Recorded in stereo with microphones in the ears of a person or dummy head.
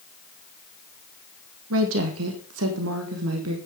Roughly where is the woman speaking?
Right.